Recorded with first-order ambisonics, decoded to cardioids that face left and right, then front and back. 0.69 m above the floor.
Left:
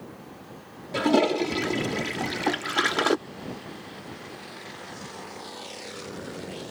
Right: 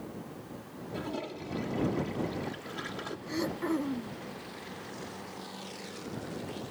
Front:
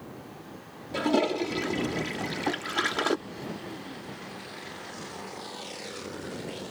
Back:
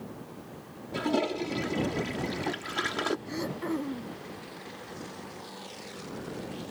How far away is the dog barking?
I don't hear a dog barking.